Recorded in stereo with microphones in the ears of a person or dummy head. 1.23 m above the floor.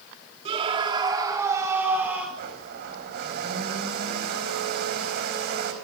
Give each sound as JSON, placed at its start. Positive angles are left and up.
{"t": 0.5, "sound": "a scream", "side_deg": -35, "distance_m": 3.0}
{"t": 2.4, "sound": "a blender", "side_deg": -50, "distance_m": 4.0}